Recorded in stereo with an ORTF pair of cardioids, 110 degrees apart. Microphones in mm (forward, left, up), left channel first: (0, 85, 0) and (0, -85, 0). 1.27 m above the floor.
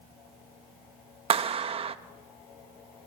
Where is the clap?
35° right, 1.0 m.